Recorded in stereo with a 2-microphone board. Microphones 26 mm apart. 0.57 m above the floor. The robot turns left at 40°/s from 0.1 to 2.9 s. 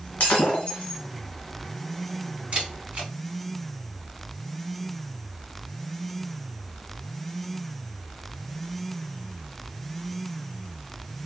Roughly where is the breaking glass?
Left.